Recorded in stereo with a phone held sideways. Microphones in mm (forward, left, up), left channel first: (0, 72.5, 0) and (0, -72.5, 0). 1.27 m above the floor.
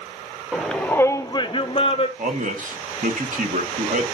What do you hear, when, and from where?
0.5 s a shout: centre (ahead or behind), 0.7 m; by 2.1 s 40° left (ahead or behind), 0.8 m
2.2 s a man speaking: 65° right (ahead or behind), 1.4 m